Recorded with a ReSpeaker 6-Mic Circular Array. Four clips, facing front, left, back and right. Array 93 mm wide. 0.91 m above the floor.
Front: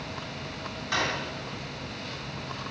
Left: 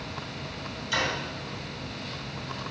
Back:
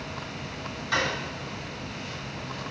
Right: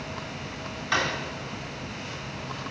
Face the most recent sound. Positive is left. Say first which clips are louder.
# right 3 dB, back 2 dB
turn(degrees=-90)